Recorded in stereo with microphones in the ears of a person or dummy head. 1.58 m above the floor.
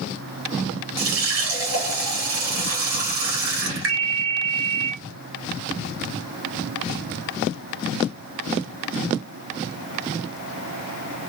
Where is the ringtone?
40° left (ahead or behind), 0.8 m.